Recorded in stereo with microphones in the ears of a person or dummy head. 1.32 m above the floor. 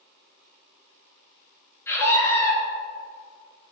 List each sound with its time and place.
1.9 s a scream: 15° left (ahead or behind), 3 m